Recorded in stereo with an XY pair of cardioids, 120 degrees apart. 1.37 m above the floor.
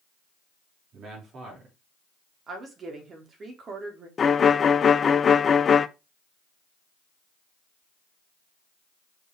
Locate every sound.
0.9 s a man speaking: 50° right, 4 m
2.5 s a woman speaking: 40° right, 3 m
4.2 s a violin: 35° left, 0.7 m